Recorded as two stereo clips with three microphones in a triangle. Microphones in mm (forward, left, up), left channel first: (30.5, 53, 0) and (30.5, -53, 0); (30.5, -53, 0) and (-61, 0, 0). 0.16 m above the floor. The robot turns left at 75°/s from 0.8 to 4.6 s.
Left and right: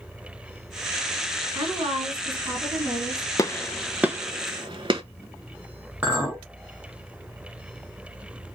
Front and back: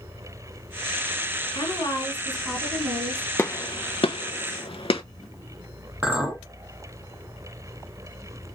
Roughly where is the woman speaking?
Ahead right.